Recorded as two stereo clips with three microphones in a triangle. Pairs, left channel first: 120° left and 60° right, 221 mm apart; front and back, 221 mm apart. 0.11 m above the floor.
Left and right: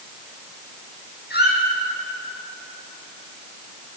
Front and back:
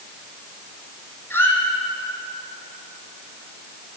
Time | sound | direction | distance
1.3 | a squeak | 80° left | 1.8 m